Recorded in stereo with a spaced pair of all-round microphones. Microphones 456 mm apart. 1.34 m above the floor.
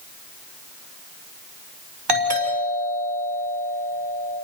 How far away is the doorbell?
About 5 m.